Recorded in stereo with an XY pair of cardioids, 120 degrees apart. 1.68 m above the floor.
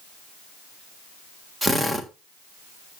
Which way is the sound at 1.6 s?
15° right.